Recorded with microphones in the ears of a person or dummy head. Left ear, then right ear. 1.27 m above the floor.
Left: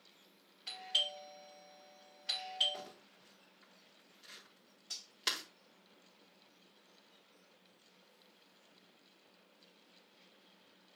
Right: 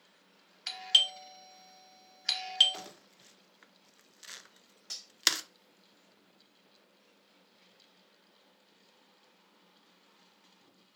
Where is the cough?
I don't hear a cough.